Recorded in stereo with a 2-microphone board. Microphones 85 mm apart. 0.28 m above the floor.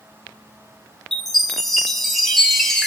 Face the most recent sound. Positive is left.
turn(degrees=5)  # may be behind; listen again after turning